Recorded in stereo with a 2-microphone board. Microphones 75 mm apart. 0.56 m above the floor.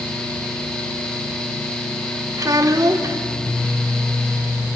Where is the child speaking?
50° right (ahead or behind), 1.2 m.